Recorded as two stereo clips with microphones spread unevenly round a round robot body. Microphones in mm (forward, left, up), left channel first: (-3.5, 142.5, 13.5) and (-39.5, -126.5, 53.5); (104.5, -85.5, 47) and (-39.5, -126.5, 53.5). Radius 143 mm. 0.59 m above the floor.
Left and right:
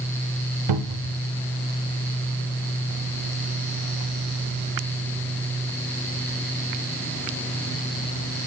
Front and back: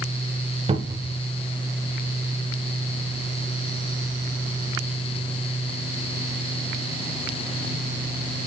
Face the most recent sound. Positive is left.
turn(degrees=-110)